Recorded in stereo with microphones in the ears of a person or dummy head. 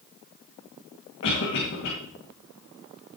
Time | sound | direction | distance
1.2 | a cough | 65° left (ahead or behind) | 2.5 m